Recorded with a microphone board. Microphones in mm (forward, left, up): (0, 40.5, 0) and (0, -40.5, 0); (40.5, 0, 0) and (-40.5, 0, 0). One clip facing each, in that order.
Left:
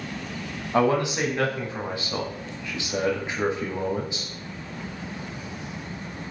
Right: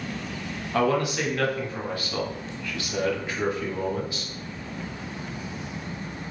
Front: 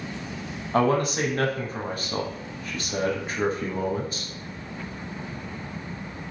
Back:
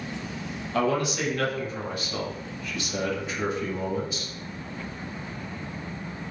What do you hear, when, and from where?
0.7 s a man speaking: 30° left, 0.7 m